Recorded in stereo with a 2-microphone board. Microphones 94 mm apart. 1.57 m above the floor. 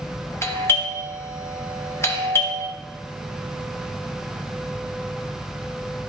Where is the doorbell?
30° left (ahead or behind), 0.9 m.